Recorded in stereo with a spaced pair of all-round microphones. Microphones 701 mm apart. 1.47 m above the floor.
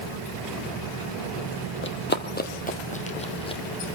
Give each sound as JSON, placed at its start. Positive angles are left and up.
{"t": 1.8, "sound": "running footsteps", "side_deg": 15, "distance_m": 1.6}